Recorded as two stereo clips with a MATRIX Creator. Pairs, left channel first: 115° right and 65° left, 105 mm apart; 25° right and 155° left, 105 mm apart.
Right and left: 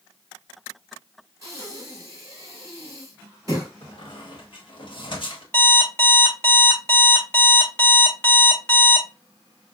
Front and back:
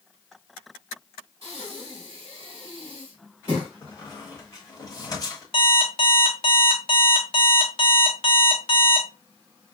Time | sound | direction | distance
1.4 | breathing | 125° left | 3.5 m
3.8 | a squeak | 75° right | 1.3 m
5.5 | an alarm clock | 45° right | 1.3 m